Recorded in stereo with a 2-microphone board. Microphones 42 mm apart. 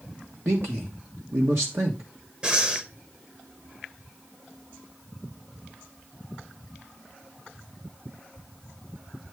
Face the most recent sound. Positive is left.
turn(degrees=-25)  # may be behind; listen again after turning